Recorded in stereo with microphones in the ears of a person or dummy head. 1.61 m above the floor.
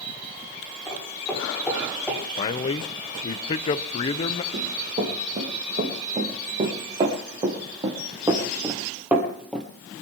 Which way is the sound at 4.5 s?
40° right (ahead or behind).